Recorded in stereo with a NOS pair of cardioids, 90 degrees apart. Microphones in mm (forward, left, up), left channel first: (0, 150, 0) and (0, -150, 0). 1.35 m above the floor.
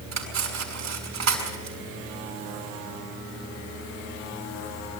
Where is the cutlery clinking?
60° right, 6 m.